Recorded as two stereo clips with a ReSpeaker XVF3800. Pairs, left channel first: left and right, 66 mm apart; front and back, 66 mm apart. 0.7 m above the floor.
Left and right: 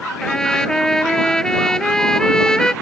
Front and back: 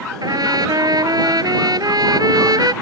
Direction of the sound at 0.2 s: 170° left.